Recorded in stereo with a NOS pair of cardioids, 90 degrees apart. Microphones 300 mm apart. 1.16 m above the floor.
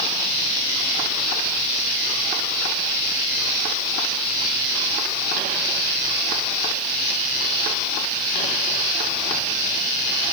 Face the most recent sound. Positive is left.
No sound to turn to.